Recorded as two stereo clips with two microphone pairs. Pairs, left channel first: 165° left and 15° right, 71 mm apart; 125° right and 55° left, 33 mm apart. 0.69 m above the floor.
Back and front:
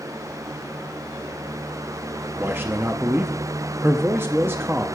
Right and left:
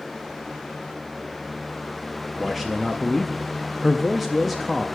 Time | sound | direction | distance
2.4 | a man speaking | 30° right | 0.5 m